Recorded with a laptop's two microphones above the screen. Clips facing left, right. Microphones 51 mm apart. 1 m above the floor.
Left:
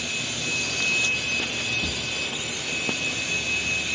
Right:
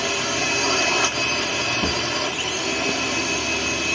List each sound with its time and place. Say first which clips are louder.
0.0 s a drone: right 7 dB; 65° right (ahead or behind)
1.8 s a drawer: right 7 dB; 45° right (ahead or behind)